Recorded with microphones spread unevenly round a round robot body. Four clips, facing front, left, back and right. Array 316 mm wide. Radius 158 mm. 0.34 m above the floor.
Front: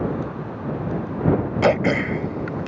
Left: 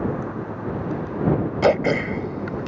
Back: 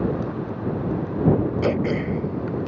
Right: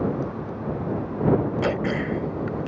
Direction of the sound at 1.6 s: 35° left.